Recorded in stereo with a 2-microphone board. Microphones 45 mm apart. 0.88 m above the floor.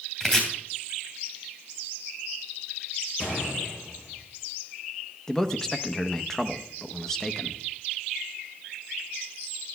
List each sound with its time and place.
0.2 s chopping: 15° left (ahead or behind), 3 m
3.2 s a gunshot: 55° left (ahead or behind), 3.5 m
5.3 s a man speaking: 10° left (ahead or behind), 0.8 m